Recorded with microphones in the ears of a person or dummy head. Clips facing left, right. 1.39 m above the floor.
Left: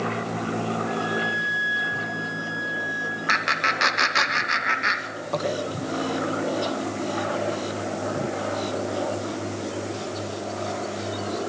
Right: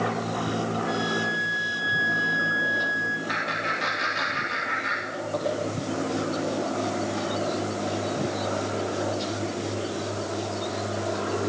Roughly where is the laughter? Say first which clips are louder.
Left 1 dB; left.